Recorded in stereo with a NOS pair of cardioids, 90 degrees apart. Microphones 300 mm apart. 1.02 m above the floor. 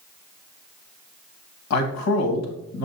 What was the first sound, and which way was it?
A man speaking, 60° left.